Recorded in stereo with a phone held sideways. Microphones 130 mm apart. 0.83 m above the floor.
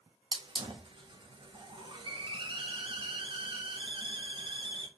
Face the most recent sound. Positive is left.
turn(degrees=-40)  # may be behind; listen again after turning